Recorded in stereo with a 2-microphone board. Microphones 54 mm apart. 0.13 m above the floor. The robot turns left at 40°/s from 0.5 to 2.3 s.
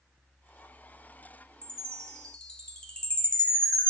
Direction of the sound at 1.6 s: 25° left (ahead or behind).